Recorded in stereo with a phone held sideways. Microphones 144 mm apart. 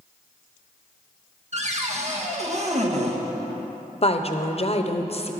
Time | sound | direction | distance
1.5 | a cupboard door | 50° right (ahead or behind) | 1.2 m
4.0 | a woman speaking | 45° left (ahead or behind) | 0.7 m